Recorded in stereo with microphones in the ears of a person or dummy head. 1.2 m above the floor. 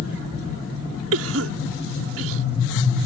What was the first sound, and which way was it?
A cough, 70° right (ahead or behind).